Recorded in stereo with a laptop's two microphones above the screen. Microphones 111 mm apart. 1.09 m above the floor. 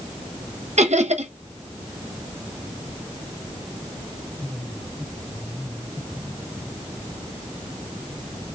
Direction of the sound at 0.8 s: 75° right (ahead or behind).